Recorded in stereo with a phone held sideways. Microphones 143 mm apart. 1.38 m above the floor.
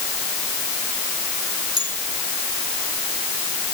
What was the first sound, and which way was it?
A bell, 30° right (ahead or behind).